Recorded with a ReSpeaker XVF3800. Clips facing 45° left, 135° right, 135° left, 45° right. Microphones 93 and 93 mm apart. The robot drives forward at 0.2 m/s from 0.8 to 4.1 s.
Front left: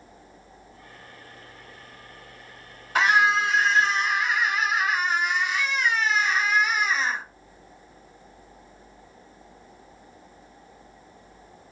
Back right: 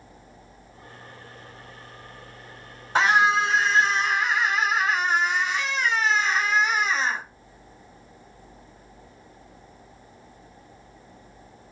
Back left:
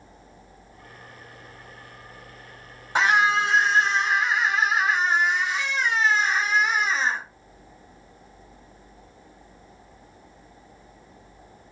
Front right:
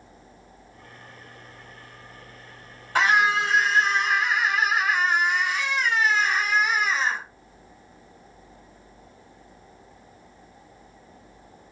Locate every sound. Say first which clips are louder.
3.0 s a scream: back right 1 dB, even; 170° right, 1.6 m; by 7.2 s 175° right, 1.7 m